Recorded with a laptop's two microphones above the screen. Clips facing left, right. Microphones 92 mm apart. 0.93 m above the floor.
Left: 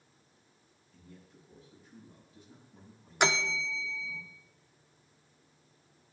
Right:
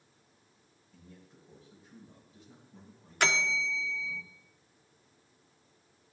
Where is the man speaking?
35° right (ahead or behind), 4 m.